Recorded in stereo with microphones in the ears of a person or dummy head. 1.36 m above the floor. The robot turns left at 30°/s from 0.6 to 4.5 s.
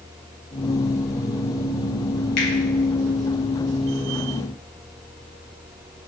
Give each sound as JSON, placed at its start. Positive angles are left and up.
{"t": 2.4, "sound": "a finger snap", "side_deg": 60, "distance_m": 1.4}